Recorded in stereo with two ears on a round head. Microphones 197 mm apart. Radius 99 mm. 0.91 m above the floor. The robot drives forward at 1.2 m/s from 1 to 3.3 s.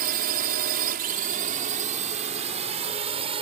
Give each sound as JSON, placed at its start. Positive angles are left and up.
{"t": 0.0, "sound": "a drone", "side_deg": -40}